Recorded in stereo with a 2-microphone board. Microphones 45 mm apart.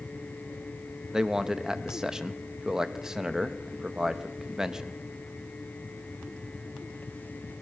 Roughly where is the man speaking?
Centre.